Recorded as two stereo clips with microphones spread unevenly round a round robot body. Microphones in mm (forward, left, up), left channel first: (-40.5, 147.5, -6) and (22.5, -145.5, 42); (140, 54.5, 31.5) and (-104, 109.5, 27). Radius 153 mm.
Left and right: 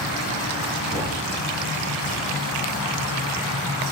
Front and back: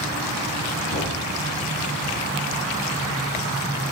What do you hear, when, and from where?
0.9 s knocking: 5° right, 4 m